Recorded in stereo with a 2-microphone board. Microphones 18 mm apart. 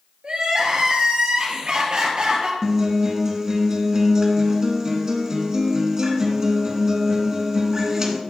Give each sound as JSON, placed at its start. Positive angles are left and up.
{"t": 0.2, "sound": "crying", "side_deg": -60, "distance_m": 3.5}
{"t": 2.6, "sound": "a guitar", "side_deg": -35, "distance_m": 1.7}